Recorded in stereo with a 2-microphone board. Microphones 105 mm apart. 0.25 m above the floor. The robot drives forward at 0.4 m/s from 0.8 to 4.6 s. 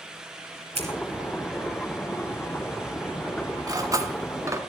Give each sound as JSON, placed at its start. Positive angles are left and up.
{"t": 0.8, "sound": "scissors", "side_deg": -80, "distance_m": 4.5}
{"t": 3.7, "sound": "cutlery clinking", "side_deg": -35, "distance_m": 1.4}